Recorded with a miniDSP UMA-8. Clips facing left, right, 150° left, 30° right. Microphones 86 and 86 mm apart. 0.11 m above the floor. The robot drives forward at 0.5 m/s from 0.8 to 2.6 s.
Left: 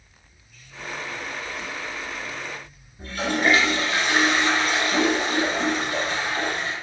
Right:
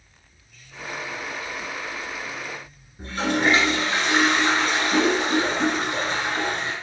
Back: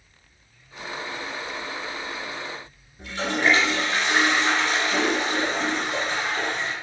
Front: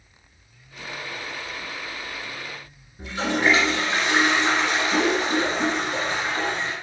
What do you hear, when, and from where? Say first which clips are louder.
3.0 s a toilet flushing: right 1 dB, front 1 dB; 100° right, 1.6 m